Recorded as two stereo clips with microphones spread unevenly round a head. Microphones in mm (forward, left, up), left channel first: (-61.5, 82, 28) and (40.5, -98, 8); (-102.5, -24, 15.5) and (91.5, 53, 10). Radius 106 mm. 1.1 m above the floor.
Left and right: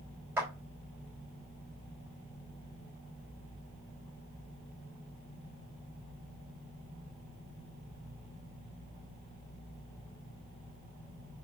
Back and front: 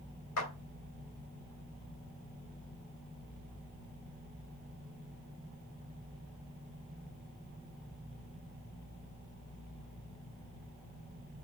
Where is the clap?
140° right, 3 m.